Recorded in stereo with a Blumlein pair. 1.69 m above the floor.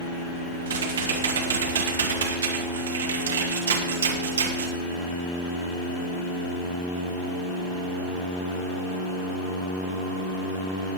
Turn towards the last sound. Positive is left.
turn(degrees=-70)